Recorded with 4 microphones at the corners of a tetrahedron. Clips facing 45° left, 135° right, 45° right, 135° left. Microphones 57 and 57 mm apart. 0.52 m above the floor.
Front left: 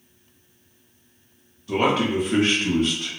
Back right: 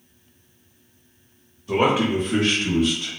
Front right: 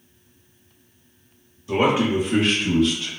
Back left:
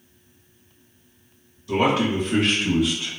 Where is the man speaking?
90° right, 0.9 m; by 3.1 s 65° left, 1.1 m.